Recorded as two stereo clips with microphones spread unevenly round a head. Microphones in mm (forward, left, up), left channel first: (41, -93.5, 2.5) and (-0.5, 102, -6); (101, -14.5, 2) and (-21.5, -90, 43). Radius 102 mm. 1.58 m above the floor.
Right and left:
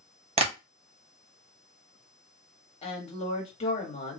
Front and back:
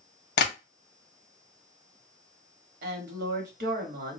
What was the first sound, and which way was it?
Tapping, 40° left.